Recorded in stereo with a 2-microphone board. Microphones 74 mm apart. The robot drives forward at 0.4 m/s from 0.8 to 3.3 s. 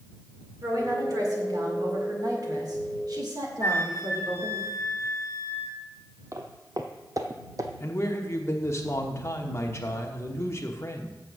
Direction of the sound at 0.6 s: 55° right (ahead or behind).